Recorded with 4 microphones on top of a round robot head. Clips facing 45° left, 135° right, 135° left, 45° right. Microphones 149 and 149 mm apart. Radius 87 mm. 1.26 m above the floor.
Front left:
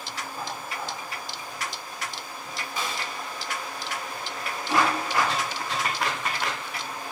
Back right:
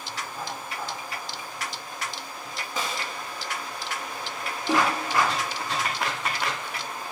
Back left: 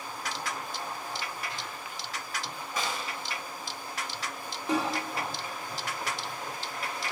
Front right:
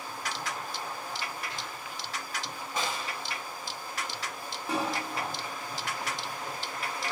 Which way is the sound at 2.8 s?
115° right.